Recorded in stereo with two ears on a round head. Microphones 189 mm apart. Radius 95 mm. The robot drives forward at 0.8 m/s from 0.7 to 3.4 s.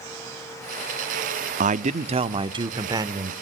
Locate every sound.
1.6 s a man speaking: 35° right (ahead or behind), 0.9 m; by 3.3 s 15° right (ahead or behind), 1.8 m